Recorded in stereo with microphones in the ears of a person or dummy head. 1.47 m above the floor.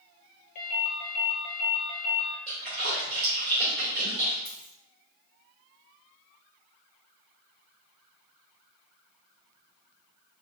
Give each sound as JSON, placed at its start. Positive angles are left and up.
{"t": 0.6, "sound": "a ringtone", "side_deg": 40, "distance_m": 0.7}
{"t": 2.5, "sound": "a splash", "side_deg": -35, "distance_m": 1.5}
{"t": 4.5, "sound": "a dropped coin", "side_deg": 0, "distance_m": 1.0}